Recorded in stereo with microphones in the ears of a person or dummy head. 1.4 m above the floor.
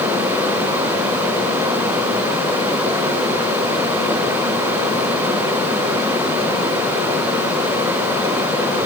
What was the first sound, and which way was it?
Only background noise.